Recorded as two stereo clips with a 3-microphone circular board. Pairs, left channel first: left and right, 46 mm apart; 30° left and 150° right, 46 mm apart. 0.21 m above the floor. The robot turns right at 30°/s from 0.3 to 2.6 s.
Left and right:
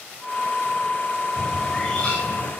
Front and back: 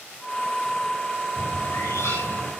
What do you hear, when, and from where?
1.4 s a bird: 5° left, 8 m; by 2.5 s 40° left, 8 m